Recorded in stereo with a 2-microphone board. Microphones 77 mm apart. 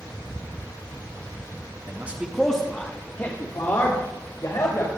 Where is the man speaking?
30° right (ahead or behind), 1.3 m; by 4.9 s 55° left (ahead or behind), 4 m.